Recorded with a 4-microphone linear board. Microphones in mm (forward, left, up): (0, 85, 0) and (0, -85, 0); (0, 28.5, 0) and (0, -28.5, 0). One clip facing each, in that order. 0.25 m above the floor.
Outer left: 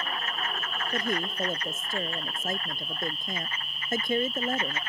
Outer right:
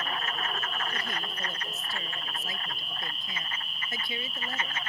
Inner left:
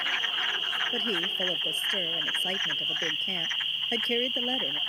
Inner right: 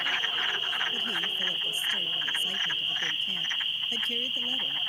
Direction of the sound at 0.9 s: 50° left (ahead or behind).